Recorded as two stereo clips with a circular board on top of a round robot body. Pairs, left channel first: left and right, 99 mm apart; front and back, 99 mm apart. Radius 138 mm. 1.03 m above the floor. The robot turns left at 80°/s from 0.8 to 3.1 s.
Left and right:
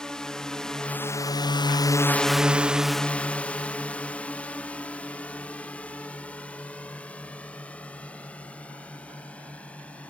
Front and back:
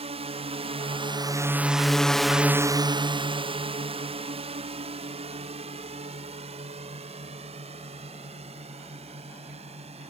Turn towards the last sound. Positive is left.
turn(degrees=165)